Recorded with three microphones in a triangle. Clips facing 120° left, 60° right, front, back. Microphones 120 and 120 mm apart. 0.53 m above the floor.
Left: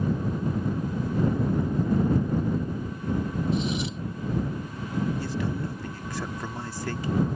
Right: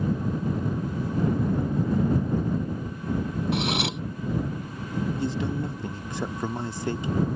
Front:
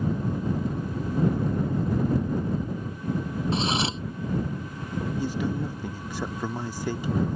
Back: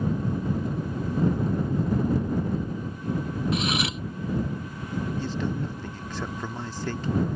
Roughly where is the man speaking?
Ahead right.